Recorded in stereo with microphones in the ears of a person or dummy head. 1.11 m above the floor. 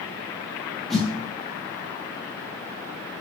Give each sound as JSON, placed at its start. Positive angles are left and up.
{"t": 0.9, "sound": "a snare drum", "side_deg": 0, "distance_m": 2.0}